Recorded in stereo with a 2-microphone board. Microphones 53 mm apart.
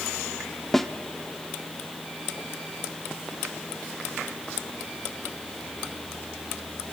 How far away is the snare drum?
About 0.9 m.